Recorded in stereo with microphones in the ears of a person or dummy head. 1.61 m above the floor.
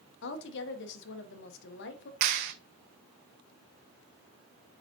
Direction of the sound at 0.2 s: 65° left (ahead or behind).